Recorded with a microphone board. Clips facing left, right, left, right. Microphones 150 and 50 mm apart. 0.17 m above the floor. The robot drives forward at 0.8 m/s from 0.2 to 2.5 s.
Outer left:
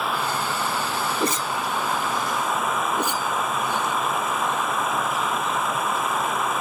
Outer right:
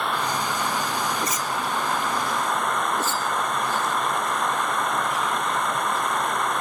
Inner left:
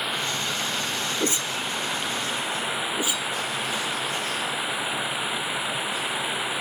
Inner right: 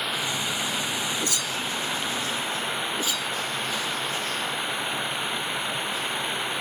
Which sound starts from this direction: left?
A whoosh, at 1.2 s.